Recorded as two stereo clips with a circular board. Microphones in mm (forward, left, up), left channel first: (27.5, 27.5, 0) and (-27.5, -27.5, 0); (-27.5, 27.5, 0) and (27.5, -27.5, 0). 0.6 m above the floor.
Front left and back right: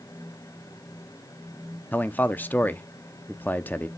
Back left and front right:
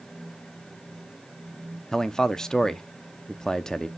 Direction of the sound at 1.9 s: 65° left.